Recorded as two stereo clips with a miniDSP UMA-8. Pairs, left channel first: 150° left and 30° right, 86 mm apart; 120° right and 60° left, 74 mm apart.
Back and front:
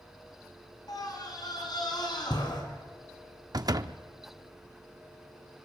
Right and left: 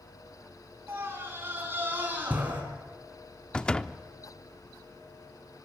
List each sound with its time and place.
0.9 s a scream: 115° left, 5 m; by 2.6 s 125° left, 5.5 m
3.5 s a door slam: 45° right, 0.6 m